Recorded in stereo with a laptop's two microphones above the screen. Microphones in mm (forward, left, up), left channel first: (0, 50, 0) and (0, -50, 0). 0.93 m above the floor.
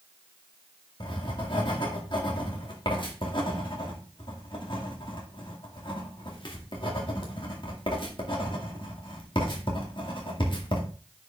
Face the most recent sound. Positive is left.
turn(degrees=55)  # may be behind; listen again after turning